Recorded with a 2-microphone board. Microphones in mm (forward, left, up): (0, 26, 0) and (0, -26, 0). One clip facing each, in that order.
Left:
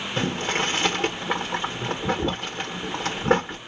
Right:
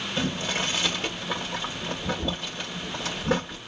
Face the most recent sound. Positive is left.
turn(degrees=45)  # may be behind; listen again after turning